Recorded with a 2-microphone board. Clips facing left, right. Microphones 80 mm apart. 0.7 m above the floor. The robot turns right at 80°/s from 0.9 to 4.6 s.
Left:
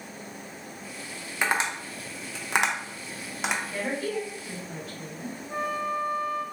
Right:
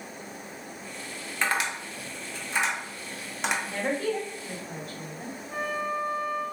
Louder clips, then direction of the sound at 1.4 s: Left 1 dB; 15° left (ahead or behind).